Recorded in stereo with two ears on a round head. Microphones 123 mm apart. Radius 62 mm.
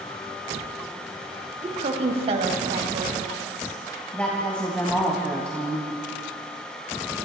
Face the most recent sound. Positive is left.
turn(degrees=10)  # may be behind; listen again after turning